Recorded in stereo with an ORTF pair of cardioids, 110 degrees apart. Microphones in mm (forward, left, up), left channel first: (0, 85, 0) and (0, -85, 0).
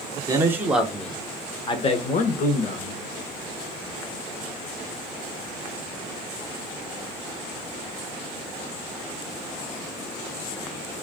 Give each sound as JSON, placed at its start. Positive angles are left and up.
{"t": 0.3, "sound": "a man speaking", "azimuth_deg": -20, "distance_m": 1.1}